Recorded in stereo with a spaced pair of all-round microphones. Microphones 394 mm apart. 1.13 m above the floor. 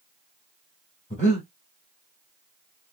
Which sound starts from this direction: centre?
Breathing, at 1.1 s.